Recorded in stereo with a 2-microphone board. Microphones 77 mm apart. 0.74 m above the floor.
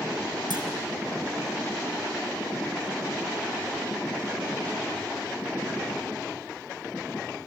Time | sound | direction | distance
0.5 | a clunk | 70° right (ahead or behind) | 3.5 m